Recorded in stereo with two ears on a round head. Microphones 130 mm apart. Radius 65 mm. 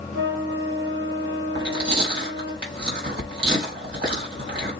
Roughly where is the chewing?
Right.